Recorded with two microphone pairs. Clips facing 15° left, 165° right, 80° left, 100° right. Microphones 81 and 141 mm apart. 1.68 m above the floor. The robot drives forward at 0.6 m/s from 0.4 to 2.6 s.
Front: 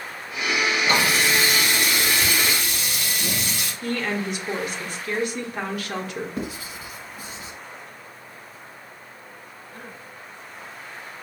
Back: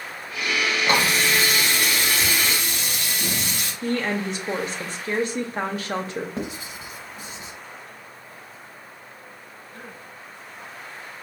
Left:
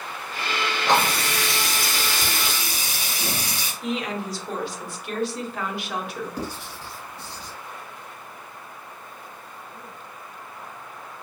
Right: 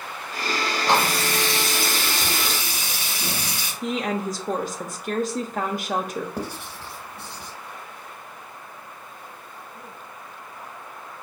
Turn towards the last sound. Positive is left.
turn(degrees=-110)